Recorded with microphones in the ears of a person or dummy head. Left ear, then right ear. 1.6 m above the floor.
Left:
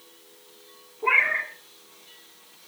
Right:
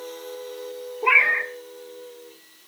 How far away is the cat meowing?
About 2 m.